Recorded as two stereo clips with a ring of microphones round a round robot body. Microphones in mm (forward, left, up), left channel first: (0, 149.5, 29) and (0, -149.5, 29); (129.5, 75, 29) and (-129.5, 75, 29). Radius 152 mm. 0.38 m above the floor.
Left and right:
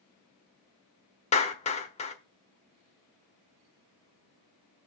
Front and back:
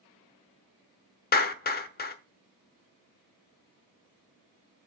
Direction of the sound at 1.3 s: 30° left.